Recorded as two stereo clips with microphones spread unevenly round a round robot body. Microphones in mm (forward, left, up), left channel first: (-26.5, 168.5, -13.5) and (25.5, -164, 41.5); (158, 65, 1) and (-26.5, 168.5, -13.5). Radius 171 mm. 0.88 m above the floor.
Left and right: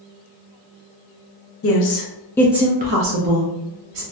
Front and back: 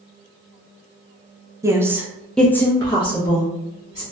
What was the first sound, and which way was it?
A woman speaking, 80° left.